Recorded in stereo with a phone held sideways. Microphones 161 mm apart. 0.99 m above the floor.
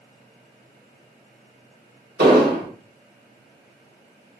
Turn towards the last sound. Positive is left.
turn(degrees=-75)  # may be behind; listen again after turning